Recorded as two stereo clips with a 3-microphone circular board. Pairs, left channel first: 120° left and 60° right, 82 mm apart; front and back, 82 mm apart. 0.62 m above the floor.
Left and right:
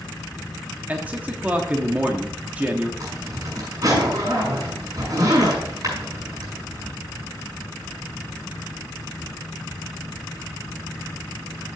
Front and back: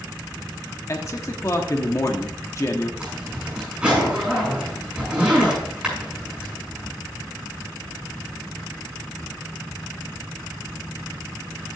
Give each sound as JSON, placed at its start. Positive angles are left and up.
{"t": 0.9, "sound": "a man speaking", "azimuth_deg": 0, "distance_m": 1.0}
{"t": 3.0, "sound": "a zipper", "azimuth_deg": -105, "distance_m": 6.0}